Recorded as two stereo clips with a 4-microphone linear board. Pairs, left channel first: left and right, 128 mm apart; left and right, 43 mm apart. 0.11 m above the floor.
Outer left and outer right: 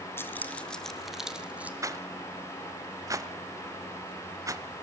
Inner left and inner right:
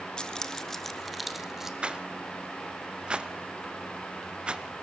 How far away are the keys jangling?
About 1.2 m.